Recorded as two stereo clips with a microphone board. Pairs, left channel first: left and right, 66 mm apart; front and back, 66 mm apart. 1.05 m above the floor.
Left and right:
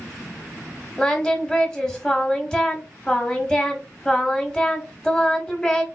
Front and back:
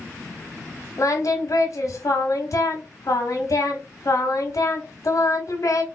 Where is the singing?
15° left, 0.9 m.